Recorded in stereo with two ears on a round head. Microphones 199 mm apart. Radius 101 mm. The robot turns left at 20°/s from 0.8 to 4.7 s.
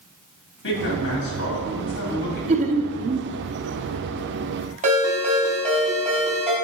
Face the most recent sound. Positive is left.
turn(degrees=-35)  # may be behind; listen again after turning